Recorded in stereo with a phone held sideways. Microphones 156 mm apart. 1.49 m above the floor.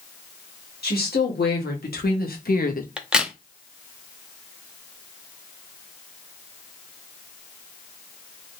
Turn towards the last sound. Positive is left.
turn(degrees=-5)  # may be behind; listen again after turning